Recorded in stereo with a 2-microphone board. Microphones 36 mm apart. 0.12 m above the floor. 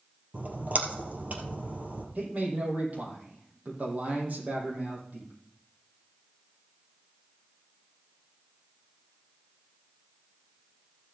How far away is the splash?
About 2.5 m.